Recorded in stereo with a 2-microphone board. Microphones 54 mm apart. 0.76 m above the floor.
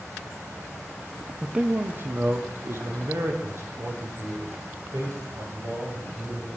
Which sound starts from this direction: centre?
A man speaking, at 1.4 s.